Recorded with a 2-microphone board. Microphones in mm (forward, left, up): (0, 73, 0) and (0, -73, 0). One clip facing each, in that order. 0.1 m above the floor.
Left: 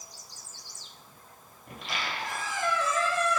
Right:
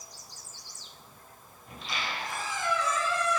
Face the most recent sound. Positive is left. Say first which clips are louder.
# left 1 dB
turn(degrees=60)  # may be behind; listen again after turning